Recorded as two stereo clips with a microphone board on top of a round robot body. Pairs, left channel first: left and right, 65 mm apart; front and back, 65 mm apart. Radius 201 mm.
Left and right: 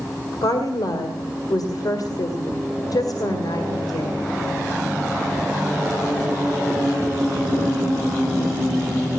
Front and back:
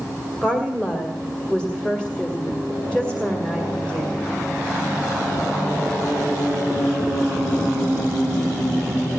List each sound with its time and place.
0.4 s a woman speaking: 75° left, 1.9 m